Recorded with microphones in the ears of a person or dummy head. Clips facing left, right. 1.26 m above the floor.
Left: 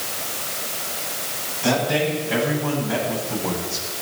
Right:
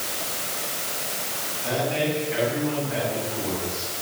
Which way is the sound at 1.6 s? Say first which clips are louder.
Left 4 dB; 75° left (ahead or behind).